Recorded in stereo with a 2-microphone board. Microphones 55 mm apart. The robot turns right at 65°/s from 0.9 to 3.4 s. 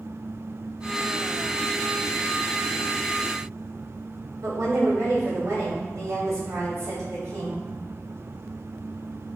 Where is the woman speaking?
75° right (ahead or behind), 1.8 m.